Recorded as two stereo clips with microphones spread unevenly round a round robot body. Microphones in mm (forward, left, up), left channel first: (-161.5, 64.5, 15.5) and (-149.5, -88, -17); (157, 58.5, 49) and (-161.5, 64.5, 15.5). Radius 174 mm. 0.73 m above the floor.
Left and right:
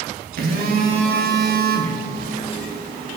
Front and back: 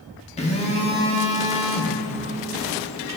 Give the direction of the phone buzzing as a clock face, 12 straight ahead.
3 o'clock.